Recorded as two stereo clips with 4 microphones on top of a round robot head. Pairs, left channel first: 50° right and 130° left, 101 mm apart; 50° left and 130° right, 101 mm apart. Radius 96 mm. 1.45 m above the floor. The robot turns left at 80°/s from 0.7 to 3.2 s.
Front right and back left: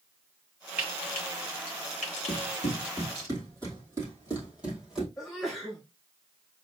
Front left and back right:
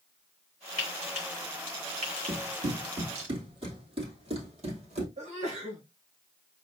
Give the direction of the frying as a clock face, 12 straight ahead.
10 o'clock.